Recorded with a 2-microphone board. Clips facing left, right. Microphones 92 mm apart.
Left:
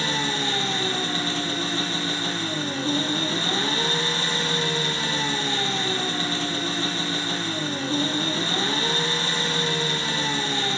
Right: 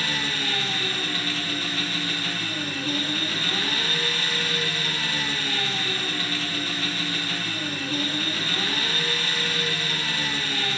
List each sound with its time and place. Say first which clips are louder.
0.0 s an engine running: left 3 dB; 30° left (ahead or behind), 1.4 m